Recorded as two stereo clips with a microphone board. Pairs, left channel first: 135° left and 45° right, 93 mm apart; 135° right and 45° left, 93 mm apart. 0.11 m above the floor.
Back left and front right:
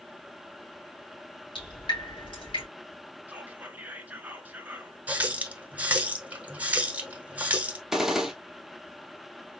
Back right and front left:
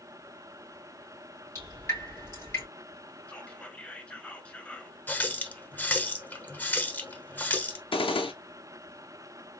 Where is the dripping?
160° left, 3 m.